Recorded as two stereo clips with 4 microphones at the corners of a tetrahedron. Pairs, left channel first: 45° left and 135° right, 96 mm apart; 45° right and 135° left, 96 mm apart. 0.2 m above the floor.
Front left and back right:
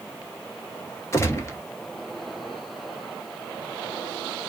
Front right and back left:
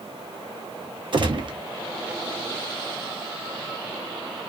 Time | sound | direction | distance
1.1 | a gunshot | 105° left | 0.7 m